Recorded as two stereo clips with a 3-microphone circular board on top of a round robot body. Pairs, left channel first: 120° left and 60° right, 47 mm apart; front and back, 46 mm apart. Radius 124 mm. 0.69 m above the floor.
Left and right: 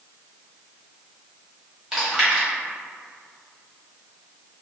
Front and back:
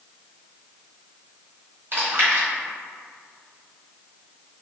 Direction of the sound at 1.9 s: 140° right.